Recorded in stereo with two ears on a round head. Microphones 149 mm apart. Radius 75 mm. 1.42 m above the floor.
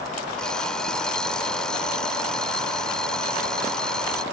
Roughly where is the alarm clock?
Centre.